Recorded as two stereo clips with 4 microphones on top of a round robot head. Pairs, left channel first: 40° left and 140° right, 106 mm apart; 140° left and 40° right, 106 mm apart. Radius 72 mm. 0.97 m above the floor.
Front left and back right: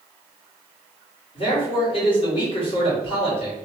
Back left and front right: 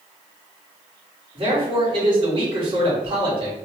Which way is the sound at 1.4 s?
Straight ahead.